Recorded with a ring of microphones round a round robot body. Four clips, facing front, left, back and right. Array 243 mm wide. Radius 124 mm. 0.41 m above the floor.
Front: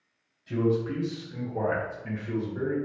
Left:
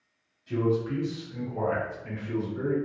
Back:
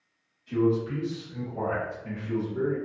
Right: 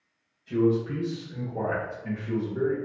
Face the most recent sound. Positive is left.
turn(degrees=-65)